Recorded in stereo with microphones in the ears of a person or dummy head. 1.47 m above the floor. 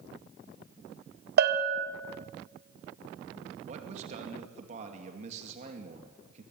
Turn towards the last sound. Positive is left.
turn(degrees=-40)  # may be behind; listen again after turning